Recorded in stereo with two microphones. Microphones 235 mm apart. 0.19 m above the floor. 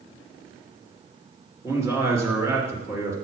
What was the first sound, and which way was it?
A man speaking, 10° right (ahead or behind).